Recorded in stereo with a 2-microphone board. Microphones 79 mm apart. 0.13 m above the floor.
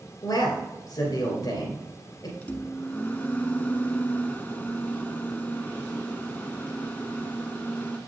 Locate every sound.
0.2 s a man speaking: 50° left (ahead or behind), 2.5 m
2.4 s a microwave: 20° left (ahead or behind), 0.8 m